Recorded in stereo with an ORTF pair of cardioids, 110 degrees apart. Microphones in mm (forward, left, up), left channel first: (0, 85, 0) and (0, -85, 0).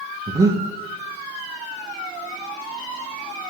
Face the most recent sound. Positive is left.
turn(degrees=-20)